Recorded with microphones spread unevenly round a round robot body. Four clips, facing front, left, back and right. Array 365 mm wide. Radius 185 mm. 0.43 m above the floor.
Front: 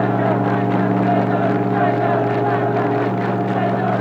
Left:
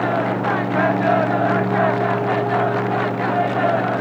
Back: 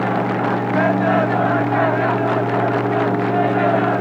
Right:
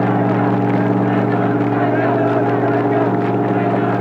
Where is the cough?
No cough in this recording.